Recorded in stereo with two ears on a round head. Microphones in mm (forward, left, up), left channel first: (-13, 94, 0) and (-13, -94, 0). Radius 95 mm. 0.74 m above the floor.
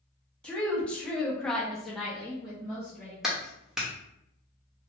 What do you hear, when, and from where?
0.4 s a woman speaking: 5° left (ahead or behind), 0.9 m; by 3.1 s 5° right (ahead or behind), 1.0 m
3.2 s a clap: centre (ahead or behind), 0.7 m